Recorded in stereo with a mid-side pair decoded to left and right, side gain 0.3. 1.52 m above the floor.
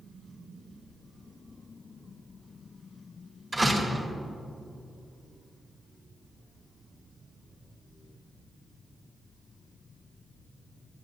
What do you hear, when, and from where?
3.5 s a door slam: 35° right, 1.9 m